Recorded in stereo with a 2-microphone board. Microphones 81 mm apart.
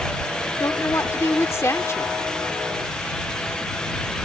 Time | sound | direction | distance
0.6 | a woman speaking | 35° left (ahead or behind) | ?